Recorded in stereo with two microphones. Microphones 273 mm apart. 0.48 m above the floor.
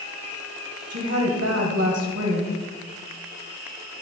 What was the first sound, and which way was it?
A woman speaking, 65° right (ahead or behind).